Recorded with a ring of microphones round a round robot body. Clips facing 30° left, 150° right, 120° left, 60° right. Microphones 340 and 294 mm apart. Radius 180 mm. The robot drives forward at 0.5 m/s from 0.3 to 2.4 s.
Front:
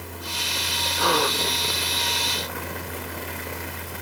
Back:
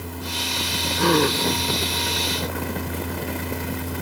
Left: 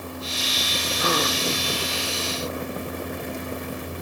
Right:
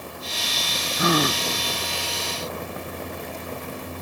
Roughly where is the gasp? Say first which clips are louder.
Back 6 dB, right 4 dB; right.